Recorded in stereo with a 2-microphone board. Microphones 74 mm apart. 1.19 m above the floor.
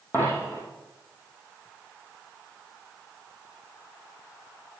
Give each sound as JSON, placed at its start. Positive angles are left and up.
{"t": 0.1, "sound": "a dropped coin", "side_deg": 30, "distance_m": 4.0}